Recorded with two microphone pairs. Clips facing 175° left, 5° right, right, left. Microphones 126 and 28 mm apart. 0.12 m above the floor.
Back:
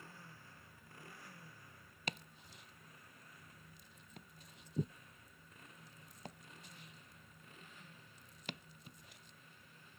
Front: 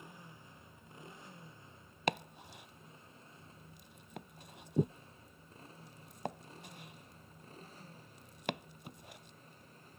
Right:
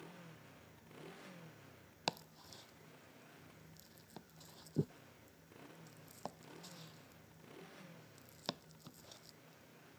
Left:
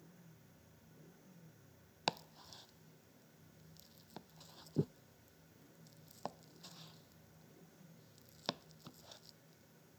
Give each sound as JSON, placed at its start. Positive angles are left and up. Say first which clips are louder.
{"t": 0.0, "sound": "a motorcycle", "louder": "front 3 dB, right 7 dB", "azimuth_deg": -75}
{"t": 2.1, "sound": "chopping", "louder": "front 12 dB, left 2 dB", "azimuth_deg": 15}